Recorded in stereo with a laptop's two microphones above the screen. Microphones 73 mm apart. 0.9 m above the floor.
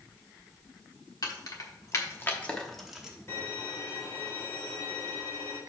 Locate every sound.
1.2 s keys jangling: 60° left (ahead or behind), 1.3 m; by 3.2 s 15° right (ahead or behind), 0.9 m
3.3 s a violin: 40° left (ahead or behind), 2.5 m